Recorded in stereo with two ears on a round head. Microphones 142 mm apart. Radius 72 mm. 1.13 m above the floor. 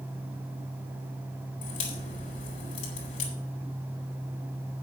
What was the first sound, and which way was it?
A crack, 50° left (ahead or behind).